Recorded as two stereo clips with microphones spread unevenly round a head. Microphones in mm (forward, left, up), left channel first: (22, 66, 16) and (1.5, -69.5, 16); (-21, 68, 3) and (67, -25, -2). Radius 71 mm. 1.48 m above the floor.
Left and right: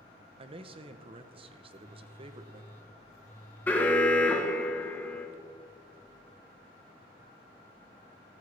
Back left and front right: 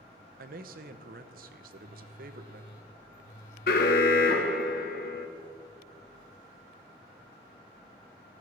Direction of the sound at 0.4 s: 50° right.